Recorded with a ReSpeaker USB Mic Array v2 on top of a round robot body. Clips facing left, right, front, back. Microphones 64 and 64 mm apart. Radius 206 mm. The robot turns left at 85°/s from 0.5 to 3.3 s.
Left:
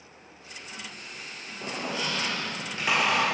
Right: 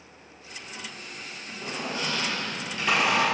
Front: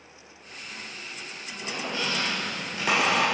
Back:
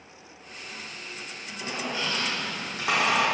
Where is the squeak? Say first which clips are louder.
Even, even; 120° left, 2 m; by 3.2 s 20° right, 2 m.